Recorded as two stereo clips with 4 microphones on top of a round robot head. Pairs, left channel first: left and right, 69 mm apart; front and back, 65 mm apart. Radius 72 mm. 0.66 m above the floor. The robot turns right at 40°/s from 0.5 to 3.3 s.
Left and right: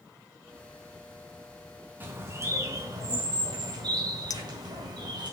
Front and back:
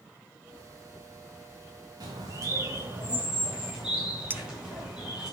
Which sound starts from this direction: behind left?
A clink, at 4.3 s.